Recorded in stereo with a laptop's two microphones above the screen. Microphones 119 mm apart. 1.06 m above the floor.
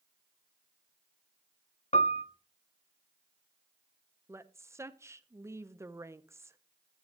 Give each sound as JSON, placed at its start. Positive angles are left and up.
{"t": 1.9, "sound": "a piano", "side_deg": 65, "distance_m": 0.7}
{"t": 4.3, "sound": "a woman speaking", "side_deg": -20, "distance_m": 0.7}